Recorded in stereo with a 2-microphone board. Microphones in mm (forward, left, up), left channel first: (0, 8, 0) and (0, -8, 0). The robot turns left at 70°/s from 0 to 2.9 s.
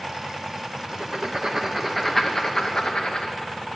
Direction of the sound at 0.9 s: 70° right (ahead or behind).